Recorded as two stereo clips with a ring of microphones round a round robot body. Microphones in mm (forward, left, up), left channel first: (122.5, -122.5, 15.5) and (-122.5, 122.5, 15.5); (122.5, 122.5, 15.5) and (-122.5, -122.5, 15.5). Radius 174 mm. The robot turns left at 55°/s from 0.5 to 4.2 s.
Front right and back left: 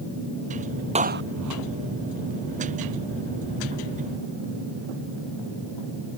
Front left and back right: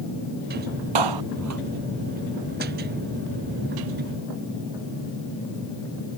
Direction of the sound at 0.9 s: 150° right.